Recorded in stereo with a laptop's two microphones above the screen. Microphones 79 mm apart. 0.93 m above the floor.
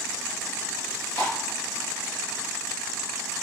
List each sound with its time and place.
0.8 s chewing: 40° right (ahead or behind), 4 m